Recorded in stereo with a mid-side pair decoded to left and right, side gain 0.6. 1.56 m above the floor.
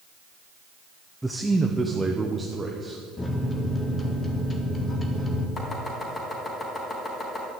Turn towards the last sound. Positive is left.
turn(degrees=35)